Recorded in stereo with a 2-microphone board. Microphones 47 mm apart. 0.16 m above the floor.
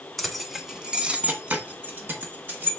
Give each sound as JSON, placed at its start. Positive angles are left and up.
{"t": 0.2, "sound": "keys jangling", "side_deg": 5, "distance_m": 0.8}